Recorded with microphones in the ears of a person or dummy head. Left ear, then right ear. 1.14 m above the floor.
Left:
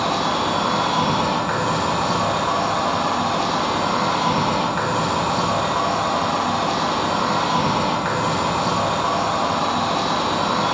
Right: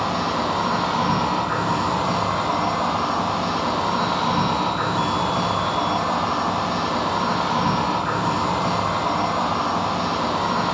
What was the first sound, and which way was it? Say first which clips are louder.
An insect: left 2 dB; 55° left (ahead or behind).